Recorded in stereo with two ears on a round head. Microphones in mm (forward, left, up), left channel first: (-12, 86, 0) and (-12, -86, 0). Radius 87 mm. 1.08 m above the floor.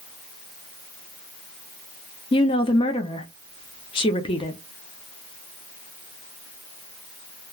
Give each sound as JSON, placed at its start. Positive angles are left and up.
{"t": 2.3, "sound": "a woman speaking", "side_deg": 25, "distance_m": 0.5}